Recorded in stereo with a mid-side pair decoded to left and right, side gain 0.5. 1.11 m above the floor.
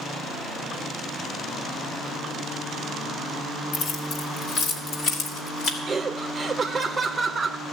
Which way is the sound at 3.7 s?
55° left.